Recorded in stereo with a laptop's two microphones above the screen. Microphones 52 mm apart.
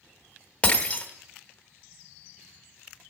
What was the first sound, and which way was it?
Breaking glass, 25° left (ahead or behind).